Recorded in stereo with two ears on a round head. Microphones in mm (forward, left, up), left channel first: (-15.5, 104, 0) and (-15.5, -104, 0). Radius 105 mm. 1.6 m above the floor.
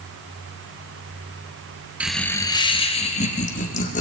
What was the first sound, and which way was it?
Laughter, 5° right (ahead or behind).